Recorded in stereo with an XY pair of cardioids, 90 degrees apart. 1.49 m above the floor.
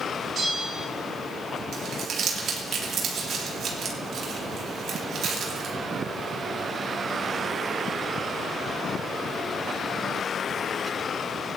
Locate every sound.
0.3 s a bell: 60° right, 5.5 m
1.7 s crumpling: 70° right, 2.5 m